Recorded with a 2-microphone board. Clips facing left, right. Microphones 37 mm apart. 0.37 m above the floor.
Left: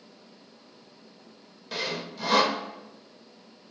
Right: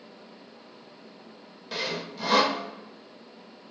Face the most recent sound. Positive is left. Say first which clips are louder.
# even
turn(degrees=0)  # may be behind; listen again after turning